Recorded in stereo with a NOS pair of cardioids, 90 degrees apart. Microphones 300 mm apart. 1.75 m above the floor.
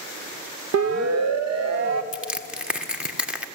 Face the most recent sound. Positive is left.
turn(degrees=-5)